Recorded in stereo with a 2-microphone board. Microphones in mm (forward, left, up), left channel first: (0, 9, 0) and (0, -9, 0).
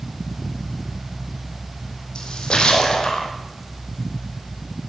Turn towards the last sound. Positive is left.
turn(degrees=75)  # may be behind; listen again after turning